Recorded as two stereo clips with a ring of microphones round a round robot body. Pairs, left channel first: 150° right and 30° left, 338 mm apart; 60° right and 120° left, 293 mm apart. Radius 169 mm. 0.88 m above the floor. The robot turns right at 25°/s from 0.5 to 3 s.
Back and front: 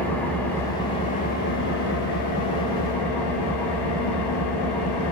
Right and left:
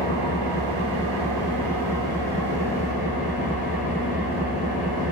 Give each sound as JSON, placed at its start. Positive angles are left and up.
{"t": 0.0, "sound": "an engine running", "azimuth_deg": 125, "distance_m": 2.5}